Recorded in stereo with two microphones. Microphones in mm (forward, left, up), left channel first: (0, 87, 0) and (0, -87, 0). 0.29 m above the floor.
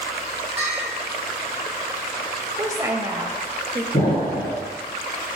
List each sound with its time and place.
0.6 s a bell: 75° left (ahead or behind), 3 m
2.6 s a woman speaking: 20° right (ahead or behind), 0.9 m
3.9 s an explosion: 70° left (ahead or behind), 3.5 m